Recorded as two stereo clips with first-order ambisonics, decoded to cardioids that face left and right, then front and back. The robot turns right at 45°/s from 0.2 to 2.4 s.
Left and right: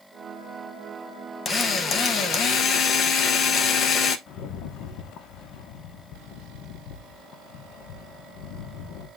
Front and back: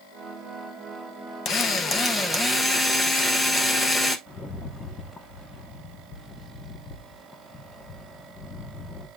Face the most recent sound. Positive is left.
turn(degrees=70)